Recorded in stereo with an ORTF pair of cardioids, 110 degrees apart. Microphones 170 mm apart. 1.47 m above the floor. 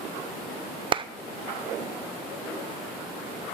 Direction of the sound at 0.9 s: 30° right.